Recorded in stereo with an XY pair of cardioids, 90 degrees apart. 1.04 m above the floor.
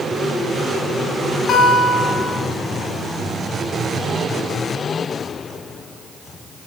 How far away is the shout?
I don't hear a shout.